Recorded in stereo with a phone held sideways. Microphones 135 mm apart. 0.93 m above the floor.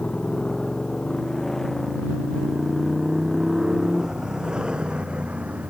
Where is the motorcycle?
5° left (ahead or behind); by 5.7 s 10° right (ahead or behind).